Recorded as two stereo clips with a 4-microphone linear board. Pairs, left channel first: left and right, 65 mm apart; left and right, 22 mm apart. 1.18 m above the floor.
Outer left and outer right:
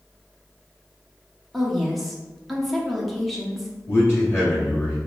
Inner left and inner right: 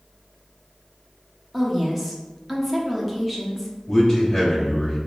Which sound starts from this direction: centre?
A woman speaking, at 1.5 s.